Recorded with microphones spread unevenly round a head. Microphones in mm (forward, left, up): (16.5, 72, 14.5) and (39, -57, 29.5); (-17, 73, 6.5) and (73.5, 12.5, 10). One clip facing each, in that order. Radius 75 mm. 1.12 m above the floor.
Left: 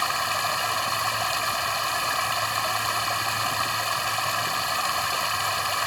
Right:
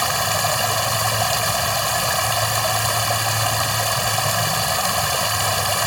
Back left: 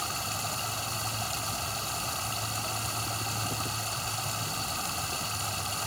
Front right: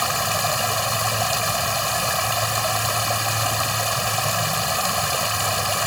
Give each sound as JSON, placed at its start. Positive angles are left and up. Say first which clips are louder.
{"t": 0.0, "sound": "running water", "louder": "right 6 dB, front right 12 dB", "azimuth_deg": -40}